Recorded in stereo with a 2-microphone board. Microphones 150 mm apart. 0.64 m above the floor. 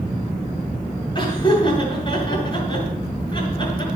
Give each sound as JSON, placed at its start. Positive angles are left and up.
{"t": 1.1, "sound": "laughter", "side_deg": 35, "distance_m": 9.5}